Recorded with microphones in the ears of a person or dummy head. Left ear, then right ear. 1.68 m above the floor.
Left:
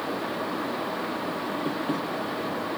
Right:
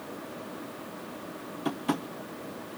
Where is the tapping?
35° right (ahead or behind), 0.7 m.